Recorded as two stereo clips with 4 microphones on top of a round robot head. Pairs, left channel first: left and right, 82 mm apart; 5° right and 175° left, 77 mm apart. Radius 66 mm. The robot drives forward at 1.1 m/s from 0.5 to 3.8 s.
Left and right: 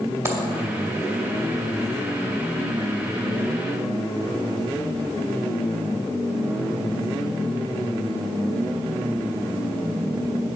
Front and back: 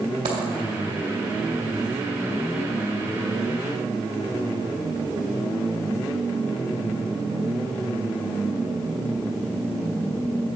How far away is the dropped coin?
About 2.5 m.